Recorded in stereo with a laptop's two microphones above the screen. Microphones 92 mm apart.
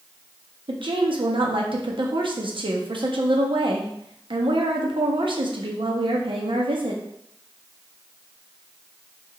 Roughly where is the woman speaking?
Right.